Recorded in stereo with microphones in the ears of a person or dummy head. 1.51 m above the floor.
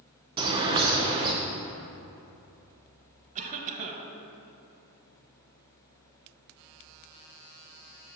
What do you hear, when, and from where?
0.4 s a bird: 25° right (ahead or behind), 0.7 m
3.4 s a cough: 35° right (ahead or behind), 1.0 m